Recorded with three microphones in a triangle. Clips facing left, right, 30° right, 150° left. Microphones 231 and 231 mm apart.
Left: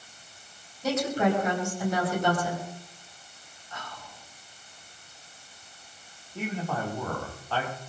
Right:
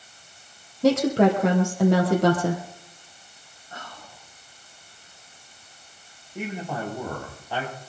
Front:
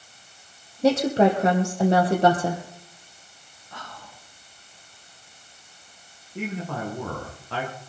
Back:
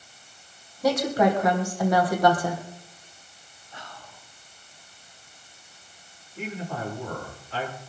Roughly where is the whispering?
Ahead right.